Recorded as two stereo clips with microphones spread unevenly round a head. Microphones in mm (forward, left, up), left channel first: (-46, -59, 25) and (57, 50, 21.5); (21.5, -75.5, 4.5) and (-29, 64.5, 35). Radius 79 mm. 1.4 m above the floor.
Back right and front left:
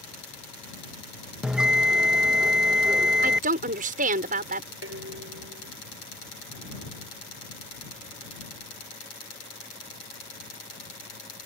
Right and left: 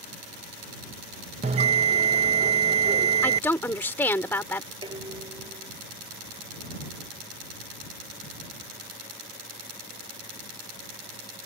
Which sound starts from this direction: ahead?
A woman speaking, at 3.2 s.